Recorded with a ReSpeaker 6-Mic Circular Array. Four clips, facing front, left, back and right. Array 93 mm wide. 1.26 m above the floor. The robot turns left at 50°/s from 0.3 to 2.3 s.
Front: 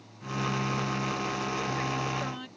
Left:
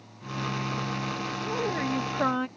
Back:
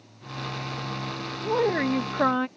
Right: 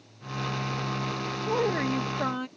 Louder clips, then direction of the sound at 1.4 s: Right 4 dB, back 8 dB; 155° right.